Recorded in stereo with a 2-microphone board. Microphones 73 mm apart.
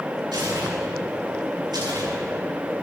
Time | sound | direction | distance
0.3 | tearing paper | 80° right | 5 m